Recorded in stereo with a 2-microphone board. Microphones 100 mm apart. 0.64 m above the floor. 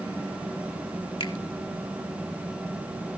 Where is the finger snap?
50° left (ahead or behind), 1.5 m.